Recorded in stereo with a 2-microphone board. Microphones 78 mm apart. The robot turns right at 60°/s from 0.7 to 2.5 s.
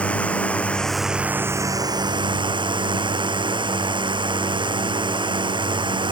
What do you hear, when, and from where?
0.0 s a drone: 165° left; by 6.1 s 90° right